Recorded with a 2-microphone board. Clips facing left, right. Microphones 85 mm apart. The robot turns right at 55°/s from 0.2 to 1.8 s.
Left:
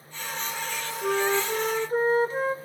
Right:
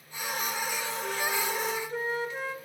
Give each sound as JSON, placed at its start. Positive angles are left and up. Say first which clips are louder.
{"t": 1.0, "sound": "a flute", "louder": "left 8 dB", "azimuth_deg": 90, "distance_m": 0.9}